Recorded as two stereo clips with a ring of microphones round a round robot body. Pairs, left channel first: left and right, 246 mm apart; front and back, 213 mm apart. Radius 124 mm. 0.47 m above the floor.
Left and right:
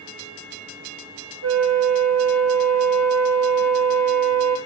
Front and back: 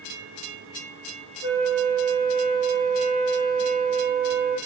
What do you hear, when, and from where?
1.4 s a flute: 105° right, 4 m